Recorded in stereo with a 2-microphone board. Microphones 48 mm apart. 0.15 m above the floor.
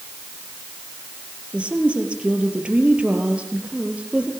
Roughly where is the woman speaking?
Right.